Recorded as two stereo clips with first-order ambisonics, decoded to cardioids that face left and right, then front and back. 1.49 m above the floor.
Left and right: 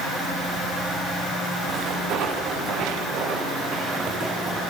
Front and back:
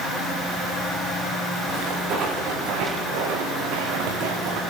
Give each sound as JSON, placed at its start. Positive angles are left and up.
{"t": 1.7, "sound": "footsteps", "azimuth_deg": -125, "distance_m": 6.0}